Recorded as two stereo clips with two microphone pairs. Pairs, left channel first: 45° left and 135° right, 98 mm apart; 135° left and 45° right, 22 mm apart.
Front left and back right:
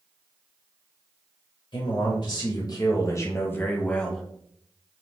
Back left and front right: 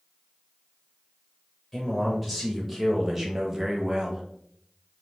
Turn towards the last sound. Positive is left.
turn(degrees=-40)